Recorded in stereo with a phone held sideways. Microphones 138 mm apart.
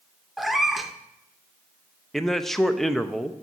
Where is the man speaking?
5° left (ahead or behind), 0.6 m.